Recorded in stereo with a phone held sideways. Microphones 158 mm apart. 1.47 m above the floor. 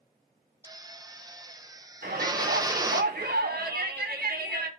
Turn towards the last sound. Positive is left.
turn(degrees=-85)